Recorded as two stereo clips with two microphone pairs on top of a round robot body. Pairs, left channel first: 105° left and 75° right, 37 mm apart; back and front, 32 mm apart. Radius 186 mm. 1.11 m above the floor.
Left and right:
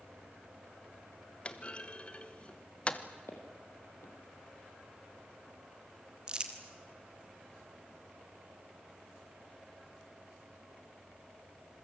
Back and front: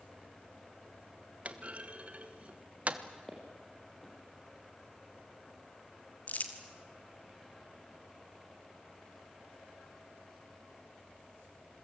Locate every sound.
1.4 s a clunk: 45° left, 1.3 m
3.3 s footsteps: 90° left, 2.5 m
6.3 s crumpling: 140° right, 1.4 m